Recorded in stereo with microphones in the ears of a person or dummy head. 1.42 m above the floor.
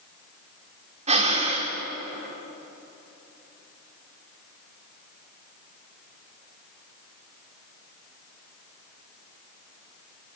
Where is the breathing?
30° right (ahead or behind), 3 m.